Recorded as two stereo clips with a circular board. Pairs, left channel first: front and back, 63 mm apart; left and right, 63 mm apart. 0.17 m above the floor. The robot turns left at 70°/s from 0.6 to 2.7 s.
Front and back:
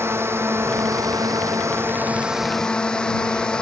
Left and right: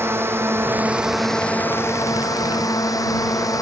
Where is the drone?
140° right; by 3.6 s 75° left.